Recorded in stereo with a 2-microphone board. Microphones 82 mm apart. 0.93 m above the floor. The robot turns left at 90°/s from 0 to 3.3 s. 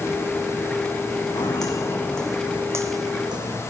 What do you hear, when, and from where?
1.3 s footsteps: 70° left (ahead or behind), 3.5 m; by 3.6 s 65° right (ahead or behind), 2 m